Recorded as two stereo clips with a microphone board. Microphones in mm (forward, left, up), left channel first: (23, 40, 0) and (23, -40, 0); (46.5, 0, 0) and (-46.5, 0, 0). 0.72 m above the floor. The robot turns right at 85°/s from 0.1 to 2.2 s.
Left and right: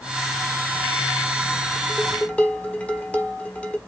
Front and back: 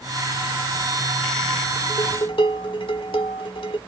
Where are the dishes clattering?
10° right, 1.4 m; by 3.8 s 20° left, 1.4 m.